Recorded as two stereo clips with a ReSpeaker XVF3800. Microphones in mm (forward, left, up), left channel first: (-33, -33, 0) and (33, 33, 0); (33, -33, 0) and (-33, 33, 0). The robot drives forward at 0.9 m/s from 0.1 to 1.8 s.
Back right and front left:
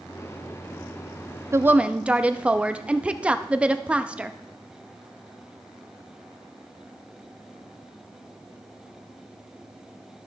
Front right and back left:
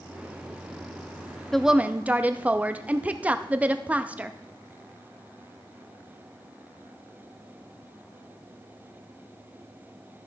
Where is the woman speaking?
40° left, 0.6 m; by 4.3 s 100° left, 0.5 m.